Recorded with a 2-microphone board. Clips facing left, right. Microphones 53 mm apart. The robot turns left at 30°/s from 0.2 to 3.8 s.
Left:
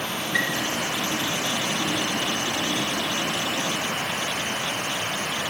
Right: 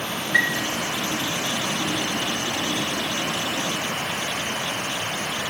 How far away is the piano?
About 3.5 m.